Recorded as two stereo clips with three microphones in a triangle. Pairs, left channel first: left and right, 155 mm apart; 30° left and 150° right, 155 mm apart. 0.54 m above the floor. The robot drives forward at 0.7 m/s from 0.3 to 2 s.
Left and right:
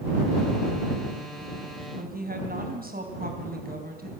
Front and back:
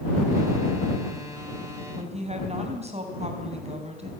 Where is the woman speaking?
105° right, 4.5 m.